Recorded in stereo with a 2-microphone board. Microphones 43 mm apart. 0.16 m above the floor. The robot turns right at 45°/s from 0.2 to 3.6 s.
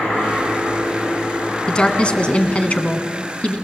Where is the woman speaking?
40° left, 1.5 m; by 3.6 s 120° left, 1.5 m.